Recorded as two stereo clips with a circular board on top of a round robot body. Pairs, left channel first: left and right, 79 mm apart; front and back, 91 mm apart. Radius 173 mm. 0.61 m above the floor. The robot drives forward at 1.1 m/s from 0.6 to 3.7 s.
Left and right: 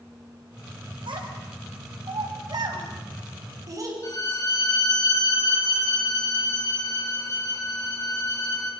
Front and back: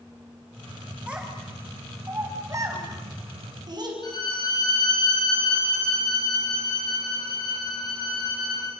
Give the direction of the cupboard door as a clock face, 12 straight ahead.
No cupboard door in this recording.